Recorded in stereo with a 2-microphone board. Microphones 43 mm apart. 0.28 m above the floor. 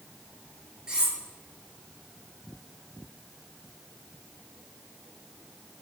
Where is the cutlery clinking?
15° right (ahead or behind), 3 m.